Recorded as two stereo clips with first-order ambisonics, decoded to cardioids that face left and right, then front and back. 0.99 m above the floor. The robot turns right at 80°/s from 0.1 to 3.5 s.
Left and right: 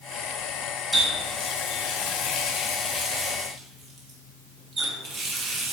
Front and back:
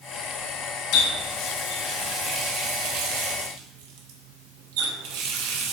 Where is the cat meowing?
I don't hear a cat meowing.